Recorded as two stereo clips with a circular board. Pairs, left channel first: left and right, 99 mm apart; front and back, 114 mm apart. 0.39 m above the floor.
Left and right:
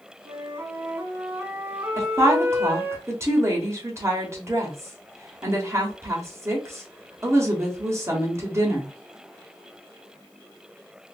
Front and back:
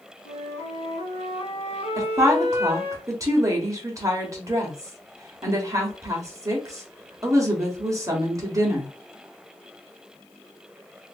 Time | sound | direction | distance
0.2 | a flute | 20° right | 0.8 m
2.0 | a woman speaking | 135° right | 1.1 m